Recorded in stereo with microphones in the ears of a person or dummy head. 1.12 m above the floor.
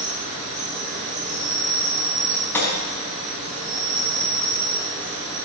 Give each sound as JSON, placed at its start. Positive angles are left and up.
{"t": 0.0, "sound": "an insect", "side_deg": -40, "distance_m": 7.0}
{"t": 2.5, "sound": "a gunshot", "side_deg": 15, "distance_m": 5.0}